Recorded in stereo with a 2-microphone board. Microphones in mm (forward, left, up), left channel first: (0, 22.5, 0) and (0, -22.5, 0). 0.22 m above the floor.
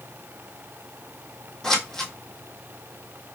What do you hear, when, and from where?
1.6 s scissors: 10° left (ahead or behind), 1.3 m